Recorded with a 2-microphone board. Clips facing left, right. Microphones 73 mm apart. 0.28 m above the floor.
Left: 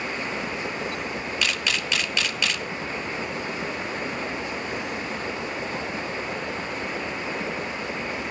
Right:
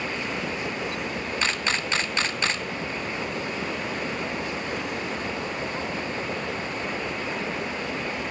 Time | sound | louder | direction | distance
1.4 | a camera shutter | right 2 dB | 35° right (ahead or behind) | 0.9 m